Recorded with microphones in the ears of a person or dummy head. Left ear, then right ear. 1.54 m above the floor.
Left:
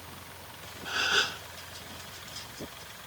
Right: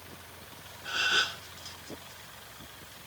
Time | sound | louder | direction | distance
0.8 | a gasp | even | 10° right (ahead or behind) | 1.1 m